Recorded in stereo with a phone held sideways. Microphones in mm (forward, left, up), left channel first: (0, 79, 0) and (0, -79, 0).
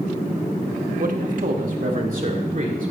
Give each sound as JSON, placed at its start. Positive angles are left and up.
{"t": 1.0, "sound": "a man speaking", "side_deg": -60, "distance_m": 1.3}